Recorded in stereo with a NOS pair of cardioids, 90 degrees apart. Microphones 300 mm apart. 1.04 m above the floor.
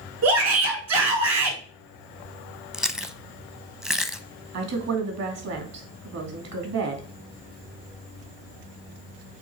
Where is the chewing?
Straight ahead, 0.7 m.